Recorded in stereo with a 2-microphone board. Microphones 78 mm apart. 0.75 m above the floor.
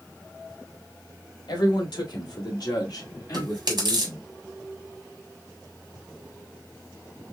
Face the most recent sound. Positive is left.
turn(degrees=-65)  # may be behind; listen again after turning